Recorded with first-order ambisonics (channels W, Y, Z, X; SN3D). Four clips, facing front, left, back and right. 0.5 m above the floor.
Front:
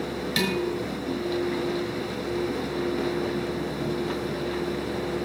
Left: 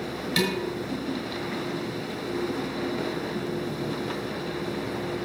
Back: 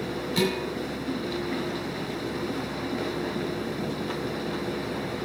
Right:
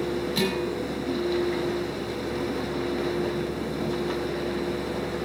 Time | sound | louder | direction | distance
0.4 | dishes clattering | left 3 dB, even | 35° left | 5.5 m